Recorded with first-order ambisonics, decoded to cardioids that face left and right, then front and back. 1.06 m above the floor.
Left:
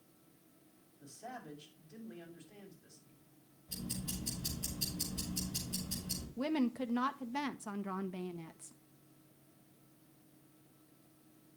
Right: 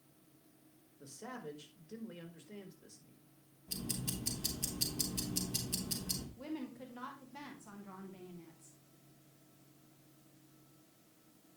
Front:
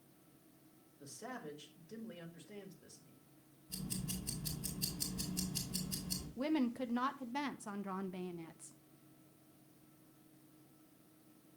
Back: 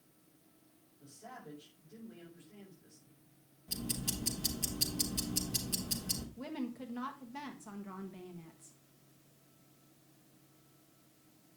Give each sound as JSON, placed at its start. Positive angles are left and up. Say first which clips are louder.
{"t": 1.0, "sound": "a man speaking", "louder": "right 1 dB, front 3 dB", "azimuth_deg": -50, "distance_m": 4.0}
{"t": 3.7, "sound": "ticking", "louder": "right 2 dB, back 7 dB", "azimuth_deg": -145, "distance_m": 3.5}
{"t": 6.4, "sound": "a woman speaking", "louder": "left 9 dB, front 6 dB", "azimuth_deg": 60, "distance_m": 0.8}